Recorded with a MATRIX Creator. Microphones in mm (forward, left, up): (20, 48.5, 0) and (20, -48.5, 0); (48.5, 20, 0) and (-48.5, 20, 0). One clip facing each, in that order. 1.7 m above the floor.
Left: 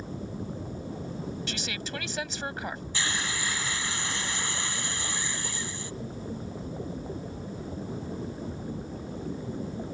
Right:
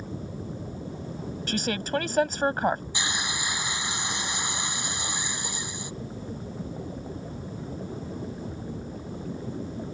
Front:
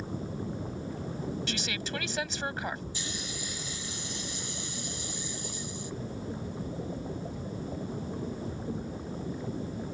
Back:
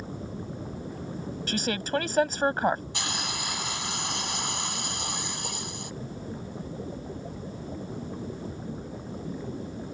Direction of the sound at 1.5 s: 135° right.